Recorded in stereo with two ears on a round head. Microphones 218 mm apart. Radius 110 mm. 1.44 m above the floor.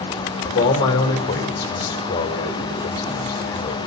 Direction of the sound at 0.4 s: 55° left (ahead or behind).